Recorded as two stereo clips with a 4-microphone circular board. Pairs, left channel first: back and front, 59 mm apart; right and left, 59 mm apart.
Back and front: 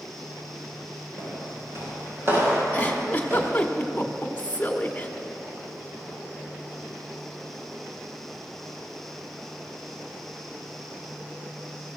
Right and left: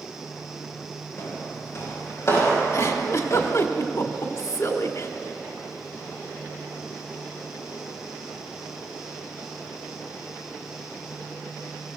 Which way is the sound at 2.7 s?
115° right.